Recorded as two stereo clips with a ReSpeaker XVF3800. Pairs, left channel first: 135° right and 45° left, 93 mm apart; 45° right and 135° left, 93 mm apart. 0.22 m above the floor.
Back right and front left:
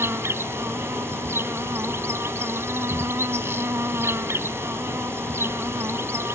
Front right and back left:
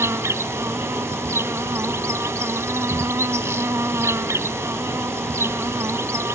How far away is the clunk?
No clunk in this recording.